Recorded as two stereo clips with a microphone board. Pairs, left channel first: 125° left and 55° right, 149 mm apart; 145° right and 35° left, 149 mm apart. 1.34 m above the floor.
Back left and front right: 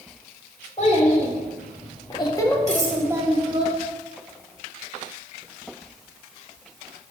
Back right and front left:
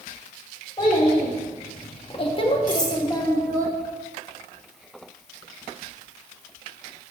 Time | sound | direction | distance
0.8 | a child speaking | 160° left | 2.0 m
2.7 | cutlery clinking | 25° right | 1.5 m